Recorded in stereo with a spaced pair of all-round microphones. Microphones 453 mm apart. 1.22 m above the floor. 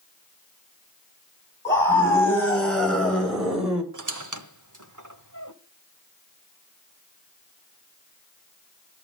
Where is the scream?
5° left (ahead or behind), 8 m; by 3.8 s centre (ahead or behind), 5.5 m.